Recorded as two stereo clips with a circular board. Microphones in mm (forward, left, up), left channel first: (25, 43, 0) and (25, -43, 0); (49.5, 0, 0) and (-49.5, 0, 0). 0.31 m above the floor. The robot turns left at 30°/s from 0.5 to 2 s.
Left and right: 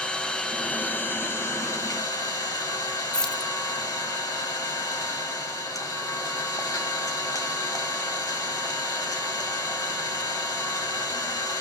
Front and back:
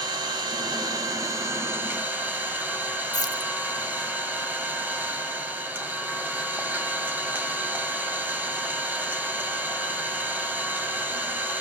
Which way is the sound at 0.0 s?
160° left.